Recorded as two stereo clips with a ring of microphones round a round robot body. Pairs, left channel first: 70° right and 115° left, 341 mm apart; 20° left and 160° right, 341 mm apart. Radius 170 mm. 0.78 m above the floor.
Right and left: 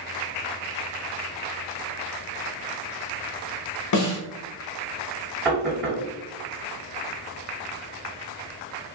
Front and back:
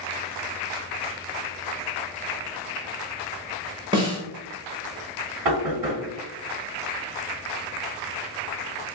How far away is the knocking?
About 1.8 m.